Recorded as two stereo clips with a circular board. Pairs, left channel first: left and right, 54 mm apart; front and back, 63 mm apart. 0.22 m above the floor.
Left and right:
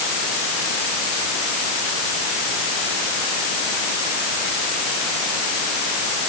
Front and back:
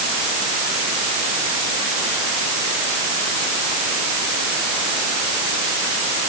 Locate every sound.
Only background noise.